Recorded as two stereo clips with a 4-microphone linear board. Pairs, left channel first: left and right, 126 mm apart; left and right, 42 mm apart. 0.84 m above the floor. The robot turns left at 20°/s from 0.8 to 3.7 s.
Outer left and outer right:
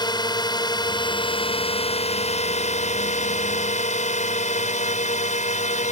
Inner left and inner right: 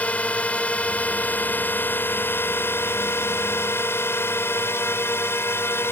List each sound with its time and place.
0.0 s a drone: 145° left; by 5.9 s 85° left